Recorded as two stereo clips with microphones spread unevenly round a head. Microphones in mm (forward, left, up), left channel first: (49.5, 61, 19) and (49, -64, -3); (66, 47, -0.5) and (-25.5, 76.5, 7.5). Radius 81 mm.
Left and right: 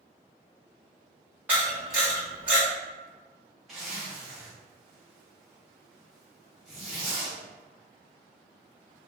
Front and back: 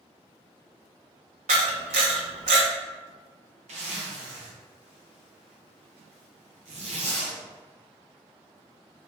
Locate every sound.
1.5 s a camera shutter: 170° right, 0.8 m
3.7 s a zipper: 175° right, 0.6 m